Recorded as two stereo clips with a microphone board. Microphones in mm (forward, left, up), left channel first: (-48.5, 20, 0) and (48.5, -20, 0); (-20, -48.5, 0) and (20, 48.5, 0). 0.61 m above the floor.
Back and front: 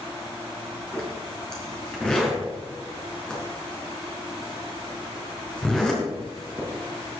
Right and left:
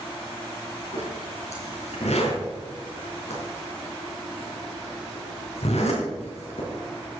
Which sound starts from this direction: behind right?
A zipper, at 0.9 s.